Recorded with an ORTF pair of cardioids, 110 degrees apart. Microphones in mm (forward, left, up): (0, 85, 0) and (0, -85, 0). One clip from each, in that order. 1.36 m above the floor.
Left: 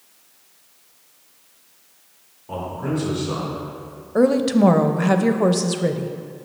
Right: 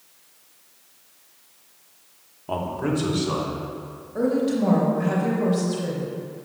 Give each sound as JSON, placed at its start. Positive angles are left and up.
{"t": 2.5, "sound": "a man speaking", "azimuth_deg": -60, "distance_m": 1.1}
{"t": 4.2, "sound": "a woman speaking", "azimuth_deg": 50, "distance_m": 0.5}